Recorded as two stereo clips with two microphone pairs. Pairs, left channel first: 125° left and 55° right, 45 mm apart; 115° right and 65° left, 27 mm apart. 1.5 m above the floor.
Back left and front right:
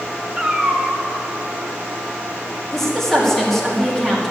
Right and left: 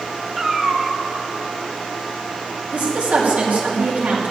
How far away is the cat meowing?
About 1.3 m.